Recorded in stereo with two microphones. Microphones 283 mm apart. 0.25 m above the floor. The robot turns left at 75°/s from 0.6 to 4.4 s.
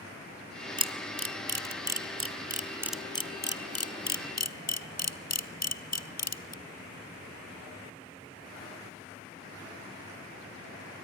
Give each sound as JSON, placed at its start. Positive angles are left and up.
{"t": 0.8, "sound": "a camera shutter", "side_deg": -15, "distance_m": 0.9}